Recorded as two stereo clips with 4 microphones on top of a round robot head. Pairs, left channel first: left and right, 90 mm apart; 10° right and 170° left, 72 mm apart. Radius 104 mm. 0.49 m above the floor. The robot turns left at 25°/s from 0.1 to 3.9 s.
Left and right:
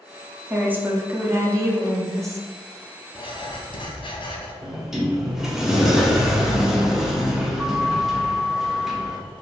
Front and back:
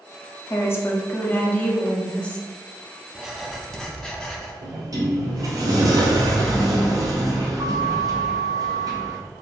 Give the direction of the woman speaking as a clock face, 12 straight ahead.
1 o'clock.